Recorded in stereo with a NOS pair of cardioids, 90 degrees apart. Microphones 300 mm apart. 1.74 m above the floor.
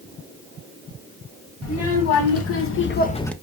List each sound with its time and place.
1.6 s a child speaking: 60° left, 2 m; by 3.3 s 5° left, 0.5 m